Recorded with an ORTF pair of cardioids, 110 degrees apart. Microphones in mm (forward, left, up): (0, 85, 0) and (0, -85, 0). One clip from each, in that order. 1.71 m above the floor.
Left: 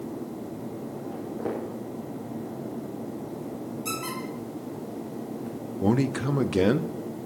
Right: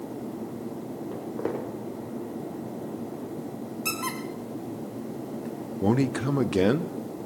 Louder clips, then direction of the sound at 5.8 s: Even; straight ahead.